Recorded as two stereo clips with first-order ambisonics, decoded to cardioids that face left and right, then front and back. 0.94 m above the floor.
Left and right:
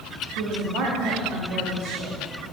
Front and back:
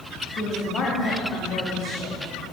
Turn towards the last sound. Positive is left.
turn(degrees=-60)